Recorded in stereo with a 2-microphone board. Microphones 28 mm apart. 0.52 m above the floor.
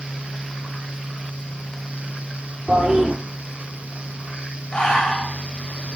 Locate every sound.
2.7 s a toilet flushing: 30° right (ahead or behind), 4.5 m
4.7 s breathing: 35° left (ahead or behind), 3 m